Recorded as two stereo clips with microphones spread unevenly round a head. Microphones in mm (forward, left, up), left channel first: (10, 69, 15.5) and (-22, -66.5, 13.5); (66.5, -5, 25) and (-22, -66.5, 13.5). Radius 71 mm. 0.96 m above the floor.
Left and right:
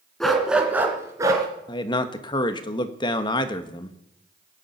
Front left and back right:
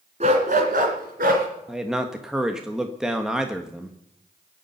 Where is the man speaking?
135° left, 1.4 m.